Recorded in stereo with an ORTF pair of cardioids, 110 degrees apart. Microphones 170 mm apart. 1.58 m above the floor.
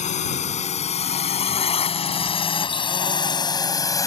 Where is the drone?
45° left; by 4.1 s 20° left.